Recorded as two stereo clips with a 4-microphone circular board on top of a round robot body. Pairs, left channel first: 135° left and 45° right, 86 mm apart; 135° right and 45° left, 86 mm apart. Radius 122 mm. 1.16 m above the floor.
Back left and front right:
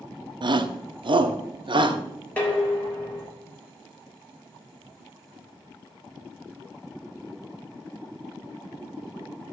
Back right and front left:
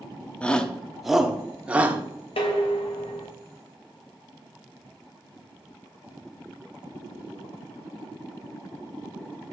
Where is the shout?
60° right, 1.3 m; by 2.0 s 25° right, 1.7 m.